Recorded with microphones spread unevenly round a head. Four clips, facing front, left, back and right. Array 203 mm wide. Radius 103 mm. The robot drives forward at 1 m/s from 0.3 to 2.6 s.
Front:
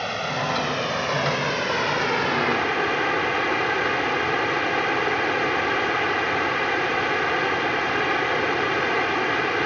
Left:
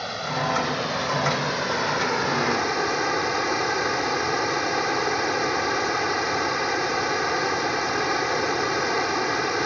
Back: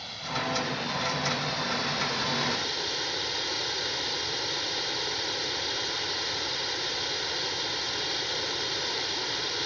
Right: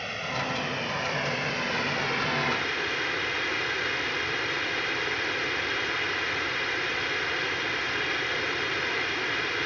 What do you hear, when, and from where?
0.0 s running water: 15° left; by 9.7 s 35° left